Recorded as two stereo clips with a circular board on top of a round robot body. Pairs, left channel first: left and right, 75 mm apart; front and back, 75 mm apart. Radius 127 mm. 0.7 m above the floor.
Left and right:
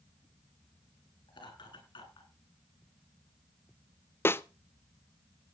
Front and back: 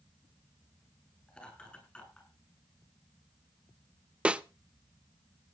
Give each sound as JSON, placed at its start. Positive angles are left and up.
{"t": 1.3, "sound": "laughter", "azimuth_deg": 75, "distance_m": 9.5}
{"t": 4.2, "sound": "a snare drum", "azimuth_deg": 115, "distance_m": 0.8}